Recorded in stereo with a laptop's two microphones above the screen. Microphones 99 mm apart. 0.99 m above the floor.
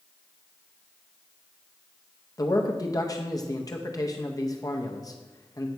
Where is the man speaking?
40° left (ahead or behind), 0.6 m.